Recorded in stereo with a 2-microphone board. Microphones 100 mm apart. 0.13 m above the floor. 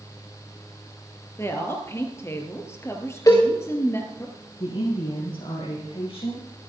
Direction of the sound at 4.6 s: 65° left (ahead or behind).